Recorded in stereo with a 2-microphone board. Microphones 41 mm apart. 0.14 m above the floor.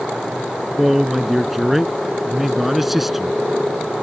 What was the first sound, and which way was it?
A man speaking, 5° right (ahead or behind).